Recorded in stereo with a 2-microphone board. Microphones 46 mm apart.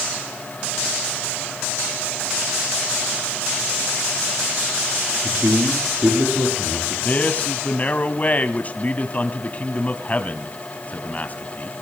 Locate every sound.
5.2 s a man speaking: 40° right (ahead or behind), 6 m; by 7.0 s 55° right (ahead or behind), 7 m
7.0 s a man speaking: 35° left (ahead or behind), 1.5 m